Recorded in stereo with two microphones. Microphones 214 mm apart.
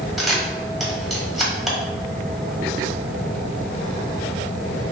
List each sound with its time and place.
0.2 s a camera shutter: centre (ahead or behind), 1.5 m